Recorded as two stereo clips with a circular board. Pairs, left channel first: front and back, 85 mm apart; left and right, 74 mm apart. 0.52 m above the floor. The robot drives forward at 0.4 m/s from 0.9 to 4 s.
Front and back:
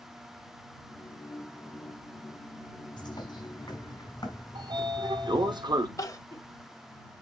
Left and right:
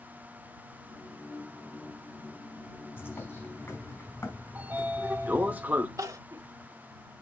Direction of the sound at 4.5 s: 155° right.